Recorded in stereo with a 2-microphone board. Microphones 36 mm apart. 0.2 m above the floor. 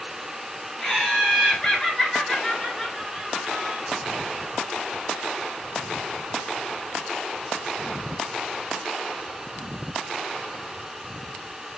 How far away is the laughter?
About 1.2 m.